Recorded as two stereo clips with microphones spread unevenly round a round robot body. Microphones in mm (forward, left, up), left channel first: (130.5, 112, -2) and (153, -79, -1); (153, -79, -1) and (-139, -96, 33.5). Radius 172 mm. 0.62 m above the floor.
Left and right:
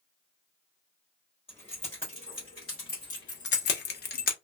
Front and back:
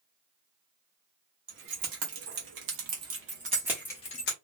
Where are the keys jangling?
170° left, 1.6 m; by 4.3 s 55° left, 0.8 m.